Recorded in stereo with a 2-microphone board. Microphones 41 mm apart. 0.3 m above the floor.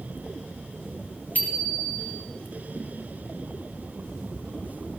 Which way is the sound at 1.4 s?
40° left (ahead or behind).